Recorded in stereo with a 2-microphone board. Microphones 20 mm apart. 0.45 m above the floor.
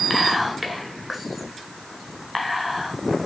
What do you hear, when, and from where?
0.1 s whispering: centre (ahead or behind), 1.6 m